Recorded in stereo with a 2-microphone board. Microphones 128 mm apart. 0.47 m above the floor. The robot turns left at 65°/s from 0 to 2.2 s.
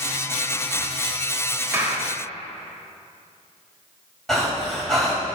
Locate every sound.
1.7 s a clap: 20° right (ahead or behind), 1.3 m; by 2.1 s centre (ahead or behind), 1.3 m
4.3 s breathing: centre (ahead or behind), 2.5 m